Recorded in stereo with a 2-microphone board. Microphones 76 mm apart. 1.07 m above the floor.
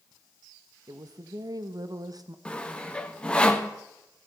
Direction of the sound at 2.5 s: 10° left (ahead or behind).